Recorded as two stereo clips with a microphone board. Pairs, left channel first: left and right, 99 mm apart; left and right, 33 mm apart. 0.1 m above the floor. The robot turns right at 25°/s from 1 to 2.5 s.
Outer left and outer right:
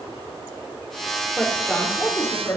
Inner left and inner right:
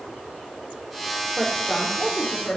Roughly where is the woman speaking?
Centre.